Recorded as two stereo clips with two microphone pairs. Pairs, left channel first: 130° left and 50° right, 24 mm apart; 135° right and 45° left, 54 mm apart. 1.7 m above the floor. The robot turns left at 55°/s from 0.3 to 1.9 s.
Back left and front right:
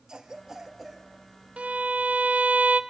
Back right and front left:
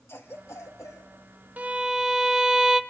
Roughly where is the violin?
Ahead.